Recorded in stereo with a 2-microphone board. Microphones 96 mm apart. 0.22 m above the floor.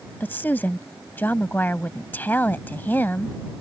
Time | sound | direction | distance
0.2 | a woman speaking | 20° left (ahead or behind) | ?